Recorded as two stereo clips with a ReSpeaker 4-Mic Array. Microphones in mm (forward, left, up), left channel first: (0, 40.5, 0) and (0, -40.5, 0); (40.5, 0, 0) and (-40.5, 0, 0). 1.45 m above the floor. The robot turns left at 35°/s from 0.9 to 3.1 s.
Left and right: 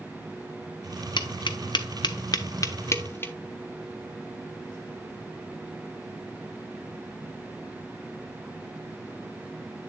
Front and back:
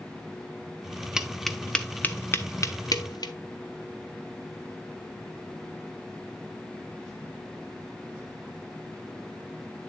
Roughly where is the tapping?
Left.